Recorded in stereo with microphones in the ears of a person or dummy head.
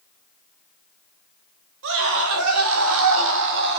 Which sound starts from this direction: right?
A scream, at 1.8 s.